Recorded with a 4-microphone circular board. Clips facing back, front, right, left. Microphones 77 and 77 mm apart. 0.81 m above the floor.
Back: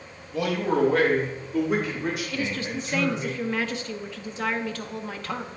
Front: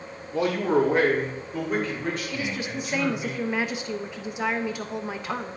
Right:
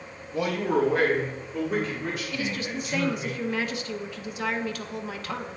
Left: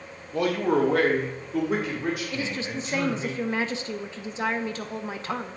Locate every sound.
0.3 s a man speaking: 50° left, 1.7 m; by 3.3 s 115° left, 3.5 m
2.3 s a woman speaking: 60° left, 0.7 m